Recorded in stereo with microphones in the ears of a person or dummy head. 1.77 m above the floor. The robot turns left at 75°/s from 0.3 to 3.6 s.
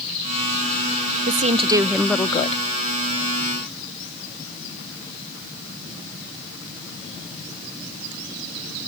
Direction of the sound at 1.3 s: 125° right.